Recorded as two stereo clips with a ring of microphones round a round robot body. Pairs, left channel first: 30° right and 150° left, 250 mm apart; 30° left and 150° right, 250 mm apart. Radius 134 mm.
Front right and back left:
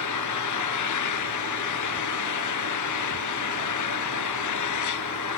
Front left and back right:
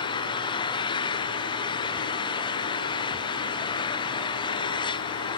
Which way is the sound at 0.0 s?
45° right.